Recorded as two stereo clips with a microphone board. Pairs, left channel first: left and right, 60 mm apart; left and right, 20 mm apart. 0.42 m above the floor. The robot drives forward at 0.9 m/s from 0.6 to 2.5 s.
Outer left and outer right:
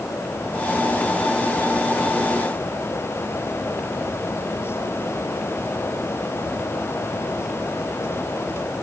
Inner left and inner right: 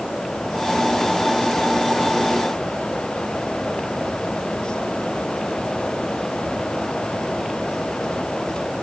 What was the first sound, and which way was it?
Only background noise.